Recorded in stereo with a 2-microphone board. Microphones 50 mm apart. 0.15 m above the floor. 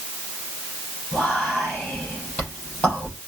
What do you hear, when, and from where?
1.1 s whispering: 30° left (ahead or behind), 5 m